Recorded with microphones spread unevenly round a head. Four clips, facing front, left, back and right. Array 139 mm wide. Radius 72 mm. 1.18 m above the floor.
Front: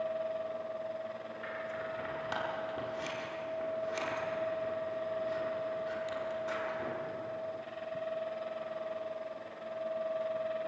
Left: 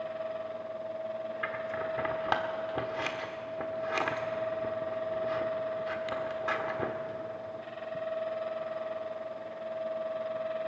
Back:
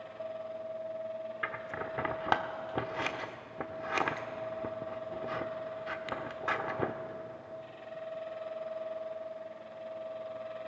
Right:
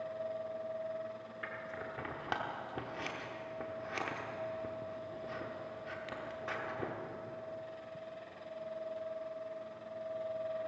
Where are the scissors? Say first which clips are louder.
Left 7 dB, back 1 dB; 165° left, 1.2 m.